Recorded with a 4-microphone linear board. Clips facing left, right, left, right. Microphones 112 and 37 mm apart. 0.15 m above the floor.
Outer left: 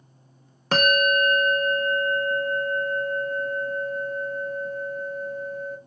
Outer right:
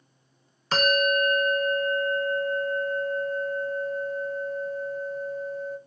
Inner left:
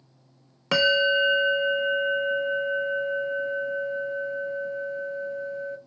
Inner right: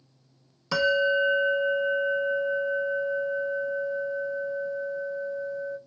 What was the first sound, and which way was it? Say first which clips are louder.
A bell: outer left 2 dB, inner left 2 dB; 60° left (ahead or behind).